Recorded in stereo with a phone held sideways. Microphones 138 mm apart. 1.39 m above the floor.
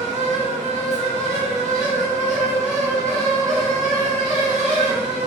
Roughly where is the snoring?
No snoring in this recording.